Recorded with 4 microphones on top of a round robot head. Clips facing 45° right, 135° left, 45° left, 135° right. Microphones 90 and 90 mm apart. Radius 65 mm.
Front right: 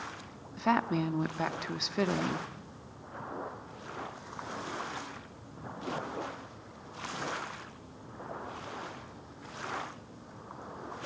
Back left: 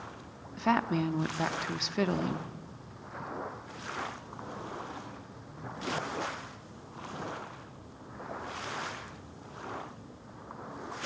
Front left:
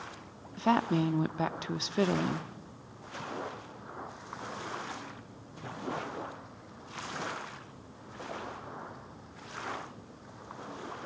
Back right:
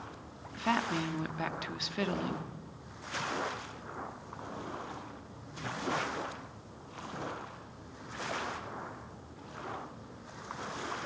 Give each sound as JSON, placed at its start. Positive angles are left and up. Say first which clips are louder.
{"t": 0.6, "sound": "a woman speaking", "louder": "back left 1 dB, front left 5 dB", "azimuth_deg": 40, "distance_m": 0.7}